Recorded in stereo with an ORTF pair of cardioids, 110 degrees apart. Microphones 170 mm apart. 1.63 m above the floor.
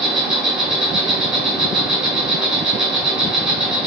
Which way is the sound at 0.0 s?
5° right.